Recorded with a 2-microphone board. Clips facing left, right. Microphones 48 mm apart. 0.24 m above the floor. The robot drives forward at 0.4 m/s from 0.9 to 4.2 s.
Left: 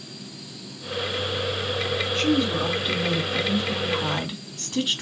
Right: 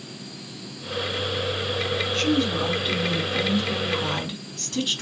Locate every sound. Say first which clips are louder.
2.1 s a woman speaking: left 1 dB; 10° left (ahead or behind), 3 m; by 5.0 s 15° left (ahead or behind), 2 m